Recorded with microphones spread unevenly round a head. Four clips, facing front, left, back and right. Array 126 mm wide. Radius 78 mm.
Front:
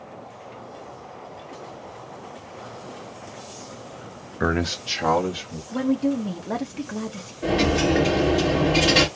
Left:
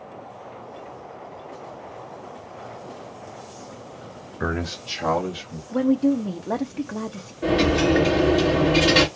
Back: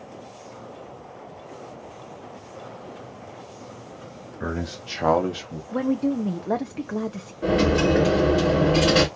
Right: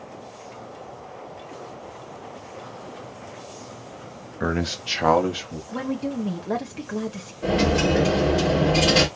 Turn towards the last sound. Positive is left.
turn(degrees=150)